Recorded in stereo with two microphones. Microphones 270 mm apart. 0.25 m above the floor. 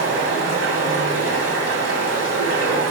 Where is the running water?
60° right (ahead or behind), 0.8 m.